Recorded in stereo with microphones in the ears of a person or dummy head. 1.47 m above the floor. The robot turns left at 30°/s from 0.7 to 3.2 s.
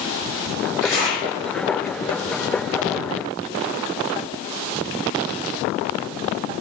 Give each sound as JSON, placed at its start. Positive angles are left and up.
{"t": 0.8, "sound": "a zipper", "side_deg": 10, "distance_m": 1.9}